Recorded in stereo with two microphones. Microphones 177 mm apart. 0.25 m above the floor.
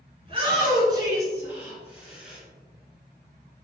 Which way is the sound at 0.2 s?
35° right (ahead or behind).